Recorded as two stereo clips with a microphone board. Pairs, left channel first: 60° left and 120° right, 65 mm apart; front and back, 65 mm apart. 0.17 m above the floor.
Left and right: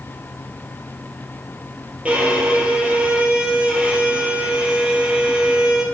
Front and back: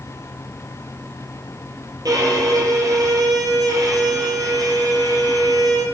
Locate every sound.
2.0 s a violin: 175° left, 5 m